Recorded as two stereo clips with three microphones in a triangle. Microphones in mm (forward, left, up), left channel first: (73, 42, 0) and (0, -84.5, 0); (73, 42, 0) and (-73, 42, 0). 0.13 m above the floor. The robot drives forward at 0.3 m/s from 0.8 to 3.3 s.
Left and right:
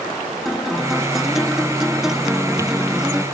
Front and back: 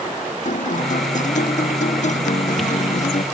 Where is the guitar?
30° right; by 3.2 s 35° right.